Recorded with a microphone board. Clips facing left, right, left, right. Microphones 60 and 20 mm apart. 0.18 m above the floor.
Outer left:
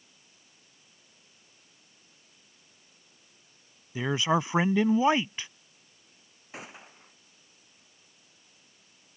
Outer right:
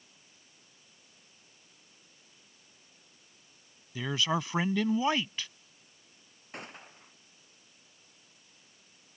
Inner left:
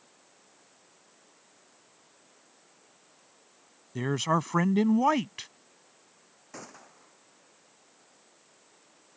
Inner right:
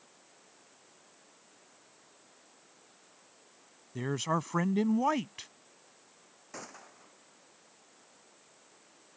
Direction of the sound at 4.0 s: 25° left (ahead or behind).